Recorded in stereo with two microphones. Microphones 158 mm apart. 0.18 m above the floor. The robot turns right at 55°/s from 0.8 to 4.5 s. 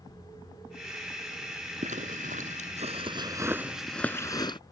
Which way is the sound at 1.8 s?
50° right (ahead or behind).